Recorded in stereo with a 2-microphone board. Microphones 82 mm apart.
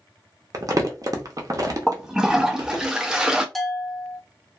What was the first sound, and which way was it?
Crumpling, 45° right (ahead or behind).